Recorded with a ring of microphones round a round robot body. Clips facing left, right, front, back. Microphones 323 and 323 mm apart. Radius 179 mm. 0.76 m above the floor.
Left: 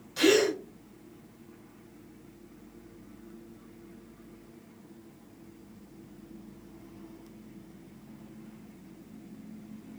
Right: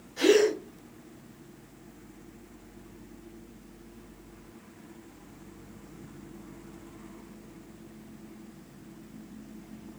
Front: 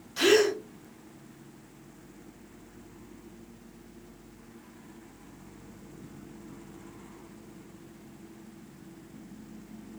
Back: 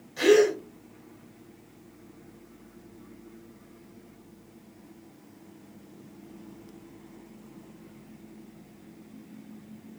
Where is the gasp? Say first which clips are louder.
Right 2 dB, back 3 dB; 40° left, 1.7 m.